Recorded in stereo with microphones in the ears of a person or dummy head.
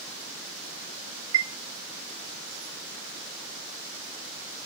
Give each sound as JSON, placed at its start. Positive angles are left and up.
{"t": 1.3, "sound": "a chime", "side_deg": -75, "distance_m": 1.1}